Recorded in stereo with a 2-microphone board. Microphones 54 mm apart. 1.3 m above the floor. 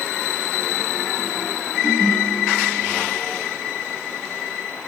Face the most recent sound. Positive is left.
turn(degrees=35)  # may be behind; listen again after turning